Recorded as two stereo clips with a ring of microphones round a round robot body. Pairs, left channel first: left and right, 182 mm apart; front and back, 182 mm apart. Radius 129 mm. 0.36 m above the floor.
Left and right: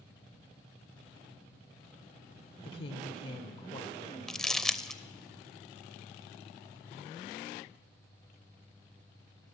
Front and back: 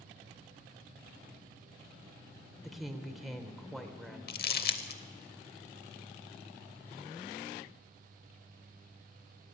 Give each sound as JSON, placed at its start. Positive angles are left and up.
{"t": 2.6, "sound": "a woman speaking", "azimuth_deg": 90, "distance_m": 1.0}
{"t": 4.3, "sound": "crumpling", "azimuth_deg": 5, "distance_m": 0.8}